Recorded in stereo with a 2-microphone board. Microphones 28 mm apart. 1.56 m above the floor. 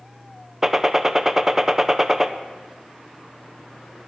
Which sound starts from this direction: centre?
A gunshot, at 0.6 s.